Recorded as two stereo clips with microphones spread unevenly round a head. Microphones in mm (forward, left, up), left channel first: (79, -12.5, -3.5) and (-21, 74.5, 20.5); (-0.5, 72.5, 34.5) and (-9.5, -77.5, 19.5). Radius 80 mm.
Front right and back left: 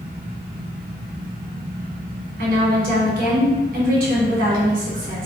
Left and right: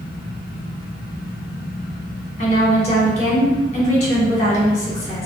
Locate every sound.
0.0 s a fan: 120° left, 0.9 m
2.4 s a woman speaking: 135° left, 1.8 m